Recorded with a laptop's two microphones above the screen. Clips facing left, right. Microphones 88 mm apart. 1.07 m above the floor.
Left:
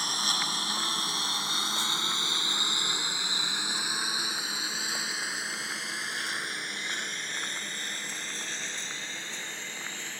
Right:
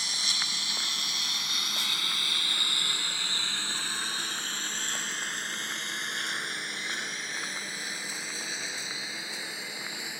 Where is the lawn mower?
50° left (ahead or behind); by 10.2 s 10° right (ahead or behind).